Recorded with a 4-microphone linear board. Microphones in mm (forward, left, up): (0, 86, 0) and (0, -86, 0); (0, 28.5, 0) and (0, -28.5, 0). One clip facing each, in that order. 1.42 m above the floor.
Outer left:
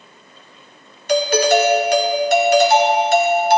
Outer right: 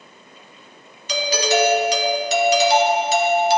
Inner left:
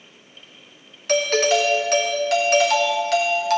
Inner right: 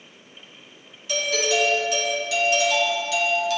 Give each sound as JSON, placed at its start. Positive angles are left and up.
{"t": 1.1, "sound": "a doorbell", "side_deg": 55, "distance_m": 0.7}